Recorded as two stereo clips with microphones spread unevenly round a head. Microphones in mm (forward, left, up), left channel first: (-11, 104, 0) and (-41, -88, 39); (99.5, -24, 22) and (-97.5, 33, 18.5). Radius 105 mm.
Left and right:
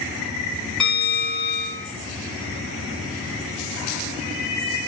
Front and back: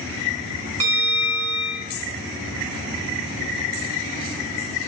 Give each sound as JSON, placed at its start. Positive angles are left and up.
{"t": 0.8, "sound": "a bell", "azimuth_deg": 175, "distance_m": 3.0}